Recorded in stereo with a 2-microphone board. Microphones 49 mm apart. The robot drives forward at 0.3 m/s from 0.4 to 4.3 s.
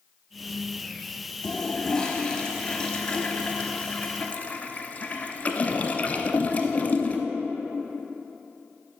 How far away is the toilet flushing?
About 1.3 m.